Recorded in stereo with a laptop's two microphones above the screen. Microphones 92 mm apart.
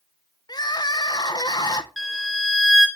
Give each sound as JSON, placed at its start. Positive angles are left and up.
{"t": 0.5, "sound": "crying", "side_deg": 45, "distance_m": 0.6}
{"t": 2.0, "sound": "a violin", "side_deg": 5, "distance_m": 1.3}